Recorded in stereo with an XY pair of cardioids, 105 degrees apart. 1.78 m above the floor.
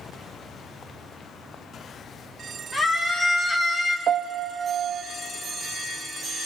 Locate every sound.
2.7 s a scream: 10° right, 2 m
4.1 s a piano: 60° right, 0.8 m